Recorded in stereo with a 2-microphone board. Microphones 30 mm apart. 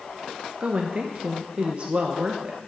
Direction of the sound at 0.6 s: 35° right (ahead or behind).